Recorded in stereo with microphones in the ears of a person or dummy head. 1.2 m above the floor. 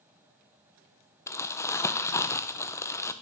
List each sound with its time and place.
1.3 s crumpling: 15° left (ahead or behind), 0.6 m